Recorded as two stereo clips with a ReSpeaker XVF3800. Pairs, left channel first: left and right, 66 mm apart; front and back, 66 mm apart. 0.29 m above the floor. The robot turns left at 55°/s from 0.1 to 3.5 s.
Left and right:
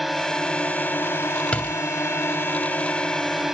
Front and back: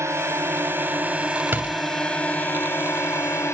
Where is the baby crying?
I don't hear a baby crying.